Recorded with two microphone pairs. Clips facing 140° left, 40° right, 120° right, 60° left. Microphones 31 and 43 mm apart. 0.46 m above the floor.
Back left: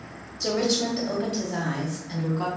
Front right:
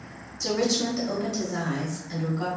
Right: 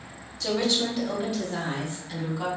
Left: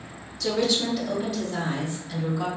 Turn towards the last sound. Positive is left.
turn(degrees=155)